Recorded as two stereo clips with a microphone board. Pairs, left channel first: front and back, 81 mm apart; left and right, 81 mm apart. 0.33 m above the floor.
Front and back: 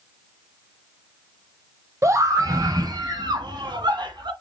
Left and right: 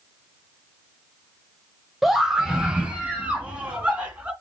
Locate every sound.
2.0 s a scream: straight behind, 1.3 m; by 4.3 s 160° right, 3.5 m